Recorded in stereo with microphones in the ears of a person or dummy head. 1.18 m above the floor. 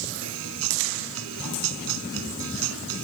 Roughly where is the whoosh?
No whoosh in this recording.